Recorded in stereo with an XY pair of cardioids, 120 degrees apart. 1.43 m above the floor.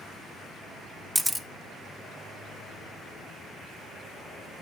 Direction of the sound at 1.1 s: 10° right.